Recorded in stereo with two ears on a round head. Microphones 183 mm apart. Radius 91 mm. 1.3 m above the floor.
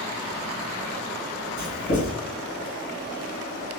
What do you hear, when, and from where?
1.6 s writing: 65° left (ahead or behind), 1.8 m